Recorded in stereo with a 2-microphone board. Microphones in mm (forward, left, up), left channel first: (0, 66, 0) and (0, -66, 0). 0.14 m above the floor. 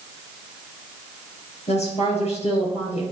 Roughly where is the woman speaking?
Left.